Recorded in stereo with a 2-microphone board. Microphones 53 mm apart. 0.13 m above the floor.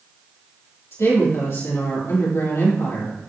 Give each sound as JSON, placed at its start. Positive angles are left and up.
{"t": 0.9, "sound": "a woman speaking", "side_deg": 65, "distance_m": 3.5}